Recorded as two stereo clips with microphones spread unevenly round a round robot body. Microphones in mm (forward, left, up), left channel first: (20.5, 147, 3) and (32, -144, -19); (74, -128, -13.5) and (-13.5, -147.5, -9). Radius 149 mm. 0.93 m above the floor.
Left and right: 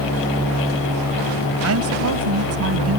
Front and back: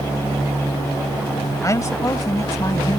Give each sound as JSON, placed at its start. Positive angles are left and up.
{"t": 1.6, "sound": "a woman speaking", "azimuth_deg": -45}